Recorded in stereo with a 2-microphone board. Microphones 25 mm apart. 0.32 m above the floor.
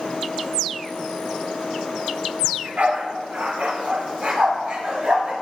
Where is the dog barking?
80° right, 2 m; by 5.3 s 60° right (ahead or behind), 5.5 m.